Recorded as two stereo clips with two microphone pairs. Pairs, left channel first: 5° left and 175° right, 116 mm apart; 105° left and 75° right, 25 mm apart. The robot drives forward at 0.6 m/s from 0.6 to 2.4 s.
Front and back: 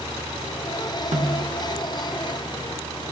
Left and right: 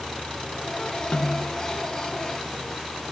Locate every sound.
1.1 s a snare drum: 160° left, 1.5 m; by 1.6 s 165° left, 1.8 m